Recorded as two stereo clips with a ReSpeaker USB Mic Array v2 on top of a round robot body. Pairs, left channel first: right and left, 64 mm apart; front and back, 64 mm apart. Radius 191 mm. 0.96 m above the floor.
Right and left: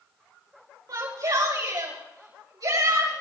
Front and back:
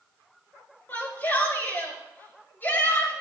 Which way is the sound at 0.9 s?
65° left.